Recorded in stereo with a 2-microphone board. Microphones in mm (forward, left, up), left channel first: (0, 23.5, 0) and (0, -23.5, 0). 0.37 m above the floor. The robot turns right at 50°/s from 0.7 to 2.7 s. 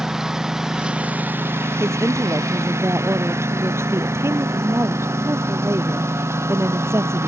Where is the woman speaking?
115° right; by 7.3 s 70° right.